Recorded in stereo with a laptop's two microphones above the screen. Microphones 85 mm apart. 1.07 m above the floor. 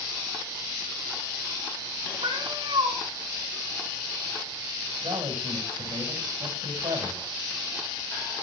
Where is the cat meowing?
75° right (ahead or behind), 5 m.